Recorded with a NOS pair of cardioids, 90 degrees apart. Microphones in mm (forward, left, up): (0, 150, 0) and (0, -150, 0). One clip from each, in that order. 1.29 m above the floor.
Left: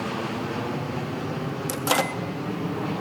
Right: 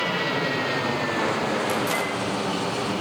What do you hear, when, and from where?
1.7 s a microwave: 50° left, 2.5 m